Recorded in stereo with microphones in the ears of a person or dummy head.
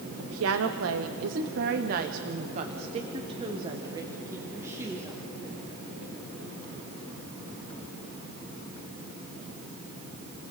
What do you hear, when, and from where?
0.2 s a woman speaking: 75° right (ahead or behind), 1.2 m; by 5.2 s 10° right (ahead or behind), 2.5 m